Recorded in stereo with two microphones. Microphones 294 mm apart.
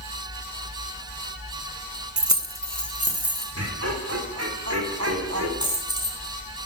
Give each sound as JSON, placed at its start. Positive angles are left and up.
{"t": 2.2, "sound": "keys jangling", "side_deg": -70, "distance_m": 0.6}
{"t": 3.5, "sound": "laughter", "side_deg": -55, "distance_m": 2.0}
{"t": 5.6, "sound": "a dropped coin", "side_deg": 70, "distance_m": 2.5}